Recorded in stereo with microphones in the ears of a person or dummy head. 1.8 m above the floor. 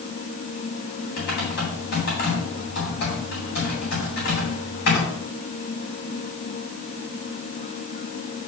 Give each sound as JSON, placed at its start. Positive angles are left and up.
{"t": 1.2, "sound": "typing on a keyboard", "side_deg": 65, "distance_m": 2.5}